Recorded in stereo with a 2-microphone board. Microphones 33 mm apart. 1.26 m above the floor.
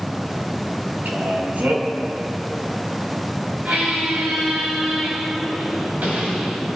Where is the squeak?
60° right (ahead or behind), 6 m.